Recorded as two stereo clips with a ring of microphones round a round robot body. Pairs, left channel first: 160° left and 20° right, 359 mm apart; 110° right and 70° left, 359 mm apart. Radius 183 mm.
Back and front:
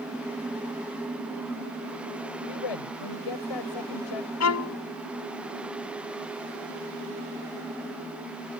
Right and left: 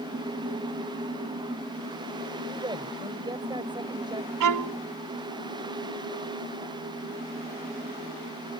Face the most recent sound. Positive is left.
turn(degrees=110)